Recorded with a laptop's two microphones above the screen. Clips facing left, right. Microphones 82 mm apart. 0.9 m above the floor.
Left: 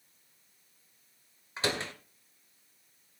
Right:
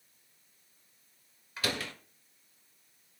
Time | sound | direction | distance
1.6 | a door slam | 25° left (ahead or behind) | 2.5 m